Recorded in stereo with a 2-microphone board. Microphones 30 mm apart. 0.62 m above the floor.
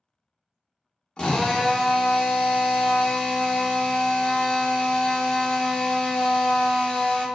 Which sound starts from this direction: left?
A drill, at 1.2 s.